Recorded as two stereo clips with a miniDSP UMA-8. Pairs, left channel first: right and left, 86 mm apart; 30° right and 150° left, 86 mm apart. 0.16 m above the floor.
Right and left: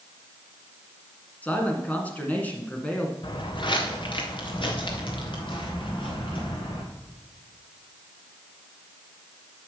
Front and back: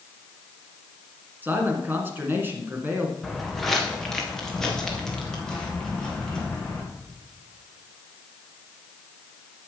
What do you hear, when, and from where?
1.4 s a man speaking: 155° right, 2.0 m
3.2 s footsteps: 120° right, 1.7 m; by 6.8 s 110° right, 3.5 m